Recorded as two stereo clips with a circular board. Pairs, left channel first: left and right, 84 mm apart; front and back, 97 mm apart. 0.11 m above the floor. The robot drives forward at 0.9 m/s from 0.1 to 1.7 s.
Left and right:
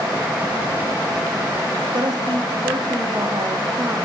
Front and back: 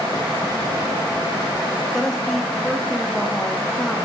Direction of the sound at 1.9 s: 85° right.